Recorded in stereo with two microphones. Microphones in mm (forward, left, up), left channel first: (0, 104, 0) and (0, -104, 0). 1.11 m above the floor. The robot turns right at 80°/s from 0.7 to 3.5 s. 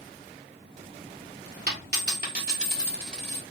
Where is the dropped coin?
115° right, 1.3 m; by 3.4 s 25° left, 1.3 m.